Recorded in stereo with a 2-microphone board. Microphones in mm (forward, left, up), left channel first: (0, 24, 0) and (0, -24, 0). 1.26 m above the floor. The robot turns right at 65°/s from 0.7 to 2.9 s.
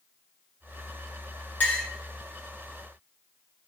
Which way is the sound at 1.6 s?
40° left (ahead or behind).